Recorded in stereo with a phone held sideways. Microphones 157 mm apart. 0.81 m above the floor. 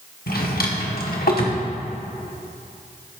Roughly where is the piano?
No piano in this recording.